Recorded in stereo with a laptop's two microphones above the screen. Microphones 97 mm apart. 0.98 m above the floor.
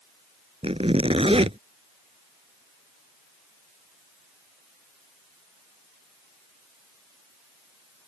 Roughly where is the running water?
I don't hear running water.